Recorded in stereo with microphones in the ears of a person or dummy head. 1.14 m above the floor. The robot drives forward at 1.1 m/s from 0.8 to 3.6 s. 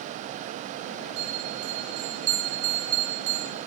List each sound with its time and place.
1.2 s a bell: 60° right (ahead or behind), 10 m; by 3.5 s 70° right (ahead or behind), 9 m